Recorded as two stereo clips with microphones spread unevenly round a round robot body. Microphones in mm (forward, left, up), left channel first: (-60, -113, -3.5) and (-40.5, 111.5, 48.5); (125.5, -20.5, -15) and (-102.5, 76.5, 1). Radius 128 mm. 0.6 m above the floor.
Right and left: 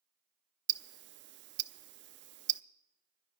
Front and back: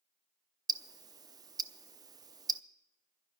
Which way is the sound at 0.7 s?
90° left.